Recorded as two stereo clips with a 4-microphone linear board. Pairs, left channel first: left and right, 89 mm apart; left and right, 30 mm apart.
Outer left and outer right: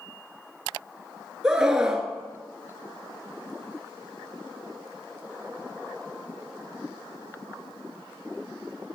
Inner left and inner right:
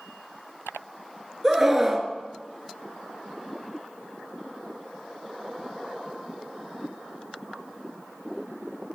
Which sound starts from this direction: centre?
A scream, at 1.4 s.